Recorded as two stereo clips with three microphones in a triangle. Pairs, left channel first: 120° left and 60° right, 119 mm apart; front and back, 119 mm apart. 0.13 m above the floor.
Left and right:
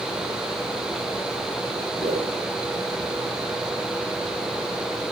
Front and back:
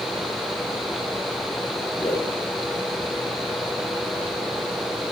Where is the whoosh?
65° right, 6 m.